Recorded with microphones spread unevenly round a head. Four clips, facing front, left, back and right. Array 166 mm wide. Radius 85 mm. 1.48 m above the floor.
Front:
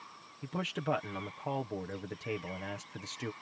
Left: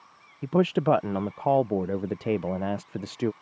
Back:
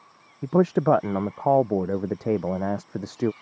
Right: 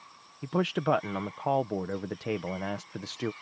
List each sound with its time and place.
0.4 s a man speaking: 160° left